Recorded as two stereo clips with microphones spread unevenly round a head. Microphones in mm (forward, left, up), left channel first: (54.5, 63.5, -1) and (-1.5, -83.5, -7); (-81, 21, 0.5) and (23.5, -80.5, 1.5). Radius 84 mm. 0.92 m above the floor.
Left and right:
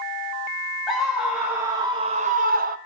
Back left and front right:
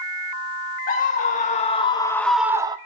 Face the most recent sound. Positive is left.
turn(degrees=-100)